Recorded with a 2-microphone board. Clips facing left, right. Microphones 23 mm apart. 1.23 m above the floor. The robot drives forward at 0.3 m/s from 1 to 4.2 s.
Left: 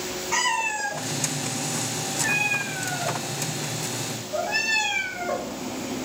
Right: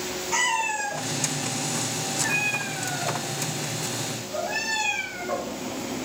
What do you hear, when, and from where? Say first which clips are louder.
0.3 s a cat meowing: even; 15° left (ahead or behind), 1.5 m; by 5.5 s 30° left (ahead or behind), 0.8 m